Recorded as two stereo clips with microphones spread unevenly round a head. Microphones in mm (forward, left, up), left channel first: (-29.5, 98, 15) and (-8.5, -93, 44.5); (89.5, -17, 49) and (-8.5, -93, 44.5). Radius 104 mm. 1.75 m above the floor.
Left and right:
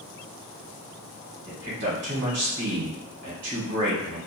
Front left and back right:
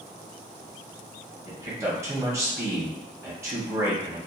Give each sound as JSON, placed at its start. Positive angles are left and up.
{"t": 1.4, "sound": "a man speaking", "azimuth_deg": -75, "distance_m": 1.1}